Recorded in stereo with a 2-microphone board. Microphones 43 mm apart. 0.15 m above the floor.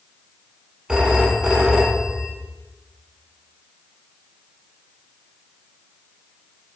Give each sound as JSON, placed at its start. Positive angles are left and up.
{"t": 0.9, "sound": "a phone ringing", "side_deg": -20, "distance_m": 0.6}